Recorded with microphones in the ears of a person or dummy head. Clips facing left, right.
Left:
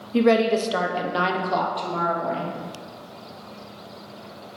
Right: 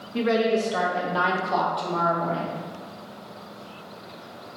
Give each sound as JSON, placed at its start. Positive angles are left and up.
{"t": 0.1, "sound": "a woman speaking", "side_deg": 40, "distance_m": 0.6}